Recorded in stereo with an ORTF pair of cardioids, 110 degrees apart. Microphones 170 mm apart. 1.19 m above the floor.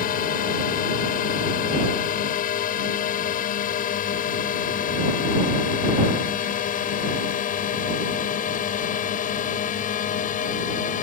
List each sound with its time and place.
0.0 s a drone: 60° left; by 11.0 s 55° left